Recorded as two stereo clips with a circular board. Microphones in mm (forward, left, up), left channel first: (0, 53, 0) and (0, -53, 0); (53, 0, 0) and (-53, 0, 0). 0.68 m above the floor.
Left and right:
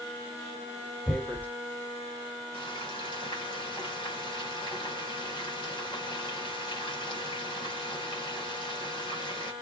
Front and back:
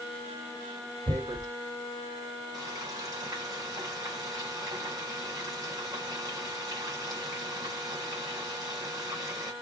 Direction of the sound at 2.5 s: 125° left.